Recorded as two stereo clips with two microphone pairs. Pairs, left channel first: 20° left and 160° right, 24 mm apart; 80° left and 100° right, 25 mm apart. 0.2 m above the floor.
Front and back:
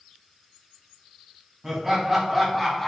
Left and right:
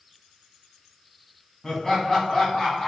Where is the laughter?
135° left, 1.2 m; by 2.9 s 70° left, 1.1 m.